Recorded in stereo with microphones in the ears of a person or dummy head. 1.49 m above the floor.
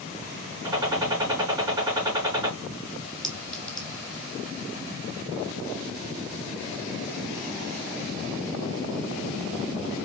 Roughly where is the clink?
Centre.